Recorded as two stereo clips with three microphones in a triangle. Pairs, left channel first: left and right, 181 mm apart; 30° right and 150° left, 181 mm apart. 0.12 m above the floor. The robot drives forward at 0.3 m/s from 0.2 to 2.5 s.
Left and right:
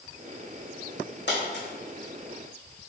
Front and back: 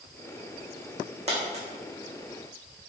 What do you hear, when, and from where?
1.3 s a dropped coin: 100° left, 1.7 m